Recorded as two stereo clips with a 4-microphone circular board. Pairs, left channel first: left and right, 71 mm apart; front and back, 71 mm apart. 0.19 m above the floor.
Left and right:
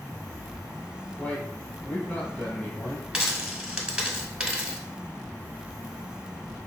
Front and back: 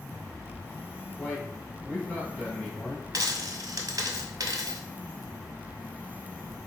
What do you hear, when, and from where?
1.2 s a man speaking: 65° left, 1.1 m
3.1 s a dropped coin: 165° right, 0.7 m